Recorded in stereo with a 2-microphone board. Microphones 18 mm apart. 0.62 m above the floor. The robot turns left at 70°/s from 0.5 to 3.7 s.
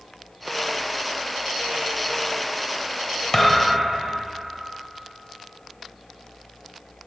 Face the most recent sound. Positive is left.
turn(degrees=0)  # may be behind; listen again after turning